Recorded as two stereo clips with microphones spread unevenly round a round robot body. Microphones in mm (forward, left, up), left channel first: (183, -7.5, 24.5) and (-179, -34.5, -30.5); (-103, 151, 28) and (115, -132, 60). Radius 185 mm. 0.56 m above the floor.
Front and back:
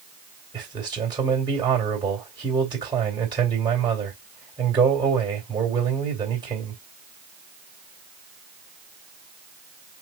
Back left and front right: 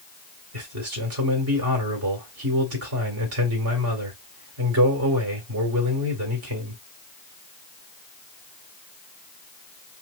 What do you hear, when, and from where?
0.5 s a man speaking: 100° right, 1.9 m